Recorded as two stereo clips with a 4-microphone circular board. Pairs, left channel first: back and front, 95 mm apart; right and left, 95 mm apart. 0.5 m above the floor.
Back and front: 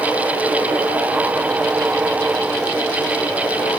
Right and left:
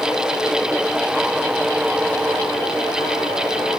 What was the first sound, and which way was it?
Only background noise.